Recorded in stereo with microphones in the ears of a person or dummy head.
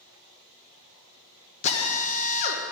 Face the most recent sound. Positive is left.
turn(degrees=40)  # may be behind; listen again after turning